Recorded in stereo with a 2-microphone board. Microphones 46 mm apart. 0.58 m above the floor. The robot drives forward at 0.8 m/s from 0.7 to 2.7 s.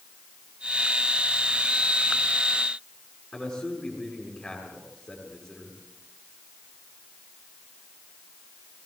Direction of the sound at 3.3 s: 20° left (ahead or behind).